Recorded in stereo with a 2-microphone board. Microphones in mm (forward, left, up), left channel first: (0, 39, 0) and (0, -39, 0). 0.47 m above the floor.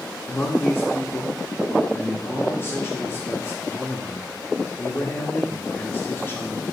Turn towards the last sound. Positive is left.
turn(degrees=30)  # may be behind; listen again after turning